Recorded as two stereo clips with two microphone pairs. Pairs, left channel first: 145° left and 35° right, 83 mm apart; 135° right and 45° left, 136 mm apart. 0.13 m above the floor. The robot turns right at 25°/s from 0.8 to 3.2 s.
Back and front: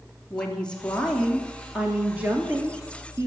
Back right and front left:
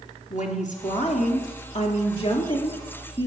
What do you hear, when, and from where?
0.3 s a woman speaking: 135° right, 2 m; by 3.3 s 75° right, 2 m